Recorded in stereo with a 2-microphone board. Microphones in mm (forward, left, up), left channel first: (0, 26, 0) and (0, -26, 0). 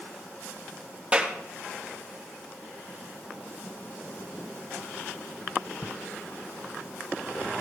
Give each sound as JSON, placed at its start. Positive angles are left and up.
{"t": 1.1, "sound": "a clap", "side_deg": -20, "distance_m": 2.5}